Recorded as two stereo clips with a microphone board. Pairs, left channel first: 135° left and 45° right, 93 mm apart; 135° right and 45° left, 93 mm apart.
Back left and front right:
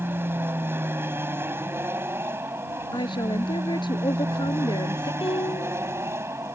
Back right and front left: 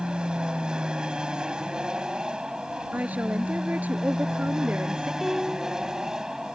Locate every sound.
0.0 s an aircraft: 25° right; by 6.5 s 30° right
2.9 s a woman speaking: 115° left
5.2 s a piano: 130° left